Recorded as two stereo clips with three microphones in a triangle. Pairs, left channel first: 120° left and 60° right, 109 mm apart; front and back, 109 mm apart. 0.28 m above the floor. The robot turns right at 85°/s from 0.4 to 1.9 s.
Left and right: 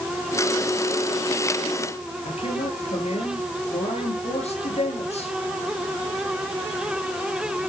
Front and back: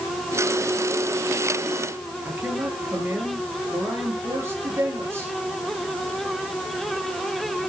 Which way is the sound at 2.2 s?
115° left.